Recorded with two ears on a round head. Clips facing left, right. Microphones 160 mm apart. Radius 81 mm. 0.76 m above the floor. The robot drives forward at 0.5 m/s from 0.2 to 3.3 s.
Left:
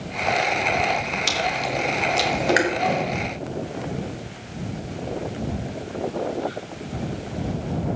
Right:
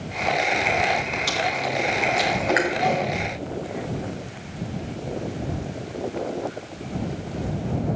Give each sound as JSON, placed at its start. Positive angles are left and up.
{"t": 1.3, "sound": "chewing", "side_deg": 25, "distance_m": 2.5}
{"t": 2.7, "sound": "a whoosh", "side_deg": -10, "distance_m": 2.5}